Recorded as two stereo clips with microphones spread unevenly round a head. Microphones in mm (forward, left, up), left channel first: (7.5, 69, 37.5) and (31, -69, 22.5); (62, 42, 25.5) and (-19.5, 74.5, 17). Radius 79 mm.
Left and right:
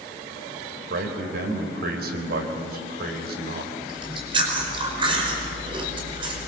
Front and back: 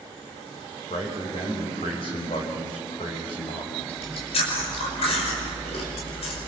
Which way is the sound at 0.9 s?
70° right.